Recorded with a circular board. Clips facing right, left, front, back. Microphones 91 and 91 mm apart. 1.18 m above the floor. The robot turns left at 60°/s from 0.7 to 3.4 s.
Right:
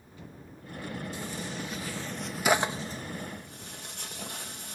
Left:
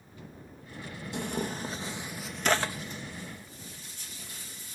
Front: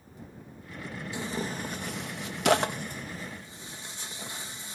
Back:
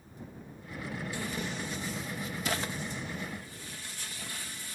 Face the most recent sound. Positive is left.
turn(degrees=-65)